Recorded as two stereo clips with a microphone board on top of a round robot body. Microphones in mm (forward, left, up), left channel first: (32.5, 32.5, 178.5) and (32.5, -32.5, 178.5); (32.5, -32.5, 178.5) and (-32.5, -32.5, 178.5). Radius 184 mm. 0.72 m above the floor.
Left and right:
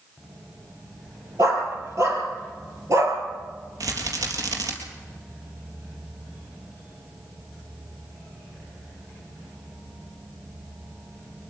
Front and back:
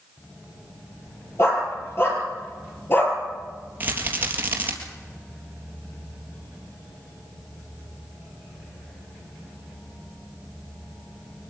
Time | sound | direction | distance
1.4 | a dog barking | 50° right | 7 m
3.8 | a rattle | 120° right | 3 m